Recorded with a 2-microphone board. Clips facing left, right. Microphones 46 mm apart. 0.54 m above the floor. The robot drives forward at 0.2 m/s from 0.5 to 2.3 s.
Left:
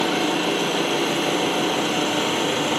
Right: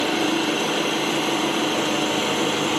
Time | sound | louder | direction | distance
0.0 | an engine running | even | 55° left (ahead or behind) | 0.8 m